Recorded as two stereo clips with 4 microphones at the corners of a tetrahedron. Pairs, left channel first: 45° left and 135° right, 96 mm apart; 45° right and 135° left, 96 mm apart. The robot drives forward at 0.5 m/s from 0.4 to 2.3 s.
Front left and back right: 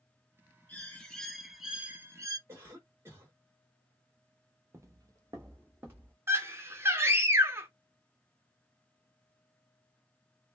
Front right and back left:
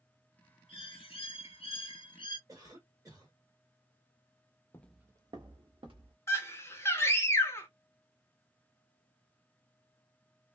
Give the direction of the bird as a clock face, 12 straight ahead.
1 o'clock.